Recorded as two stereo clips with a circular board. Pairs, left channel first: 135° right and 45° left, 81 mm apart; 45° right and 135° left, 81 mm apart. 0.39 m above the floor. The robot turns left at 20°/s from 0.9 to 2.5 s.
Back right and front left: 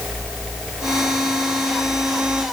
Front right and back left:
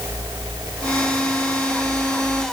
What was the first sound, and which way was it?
Only background noise.